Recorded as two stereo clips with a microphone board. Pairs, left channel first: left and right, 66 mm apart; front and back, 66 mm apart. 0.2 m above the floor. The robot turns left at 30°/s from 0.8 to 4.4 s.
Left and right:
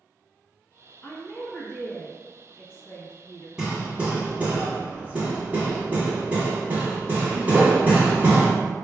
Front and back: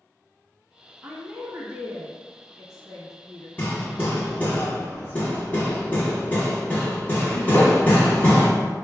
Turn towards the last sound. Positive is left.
turn(degrees=-40)